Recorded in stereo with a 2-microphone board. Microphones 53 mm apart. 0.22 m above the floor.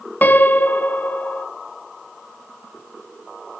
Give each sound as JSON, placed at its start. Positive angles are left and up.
{"t": 0.2, "sound": "a piano", "side_deg": 35, "distance_m": 0.8}